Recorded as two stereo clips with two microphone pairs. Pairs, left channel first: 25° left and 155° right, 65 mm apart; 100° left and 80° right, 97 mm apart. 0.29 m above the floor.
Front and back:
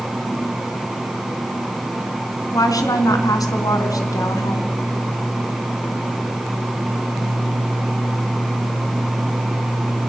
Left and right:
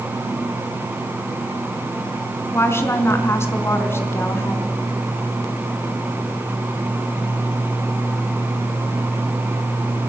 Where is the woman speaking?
40° left, 3.5 m.